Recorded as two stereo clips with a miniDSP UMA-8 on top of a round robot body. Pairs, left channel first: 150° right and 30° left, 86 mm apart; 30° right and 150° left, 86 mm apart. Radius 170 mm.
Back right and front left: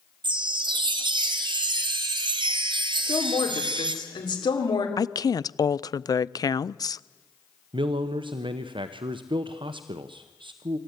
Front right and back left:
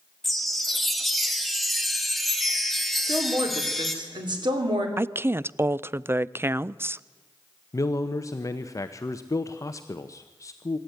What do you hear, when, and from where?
0.2 s a chime: 60° left, 1.0 m
3.0 s a woman speaking: straight behind, 3.5 m
5.0 s a woman speaking: 160° right, 0.5 m
7.7 s a man speaking: 20° left, 0.9 m